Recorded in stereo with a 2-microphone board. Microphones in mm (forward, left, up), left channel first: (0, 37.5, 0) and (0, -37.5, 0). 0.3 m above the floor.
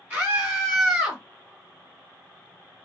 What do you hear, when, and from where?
0.1 s a scream: 30° right (ahead or behind), 2 m; by 1.2 s 10° right (ahead or behind), 2 m